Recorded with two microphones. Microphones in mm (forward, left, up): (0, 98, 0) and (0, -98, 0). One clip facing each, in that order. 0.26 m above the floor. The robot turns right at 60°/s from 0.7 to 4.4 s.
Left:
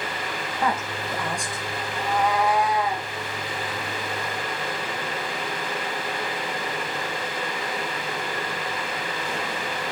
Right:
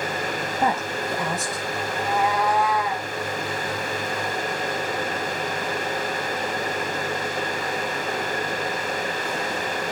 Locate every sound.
0.6 s a woman speaking: 30° right (ahead or behind), 1.6 m; by 1.7 s 5° left (ahead or behind), 1.6 m
1.9 s a cat meowing: 25° right, 3.5 m; by 3.1 s 45° left, 3.5 m